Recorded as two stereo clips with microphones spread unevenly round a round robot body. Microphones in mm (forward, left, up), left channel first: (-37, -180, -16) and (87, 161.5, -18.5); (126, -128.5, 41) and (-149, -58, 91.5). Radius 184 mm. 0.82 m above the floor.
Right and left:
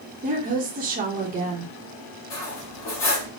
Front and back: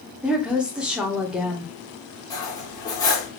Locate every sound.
0.2 s a woman speaking: 60° left, 0.7 m
2.3 s cutlery clinking: 90° right, 1.7 m